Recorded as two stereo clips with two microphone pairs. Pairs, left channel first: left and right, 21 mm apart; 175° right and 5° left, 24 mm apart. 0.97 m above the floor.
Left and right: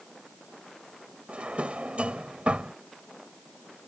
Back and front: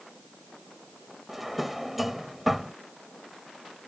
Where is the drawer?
75° right.